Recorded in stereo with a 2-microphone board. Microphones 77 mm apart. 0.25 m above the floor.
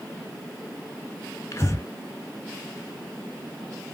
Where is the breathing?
40° left (ahead or behind), 0.6 m.